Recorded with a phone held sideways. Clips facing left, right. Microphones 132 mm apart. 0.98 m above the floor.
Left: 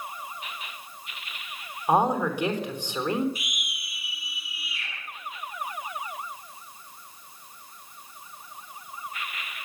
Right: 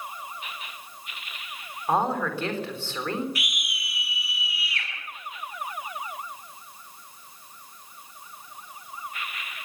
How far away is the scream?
About 10 m.